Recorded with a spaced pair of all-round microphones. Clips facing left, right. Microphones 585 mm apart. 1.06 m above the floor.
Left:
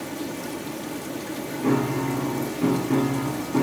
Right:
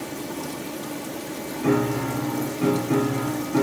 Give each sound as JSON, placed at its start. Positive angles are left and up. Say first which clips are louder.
{"t": 1.6, "sound": "a piano", "louder": "right 1 dB", "side_deg": -5, "distance_m": 2.5}